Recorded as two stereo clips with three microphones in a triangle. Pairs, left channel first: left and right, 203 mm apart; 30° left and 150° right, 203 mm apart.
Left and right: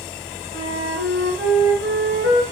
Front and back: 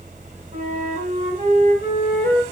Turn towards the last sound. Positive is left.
turn(degrees=-95)